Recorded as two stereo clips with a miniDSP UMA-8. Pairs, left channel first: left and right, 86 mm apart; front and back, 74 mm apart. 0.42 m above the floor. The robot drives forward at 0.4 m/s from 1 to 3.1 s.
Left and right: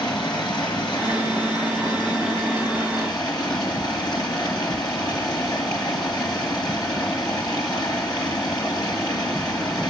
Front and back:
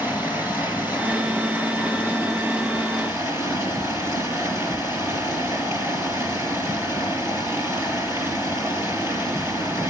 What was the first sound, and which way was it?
Running water, 115° left.